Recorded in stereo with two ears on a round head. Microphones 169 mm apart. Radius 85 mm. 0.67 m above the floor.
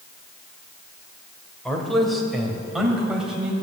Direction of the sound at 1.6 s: 5° left (ahead or behind).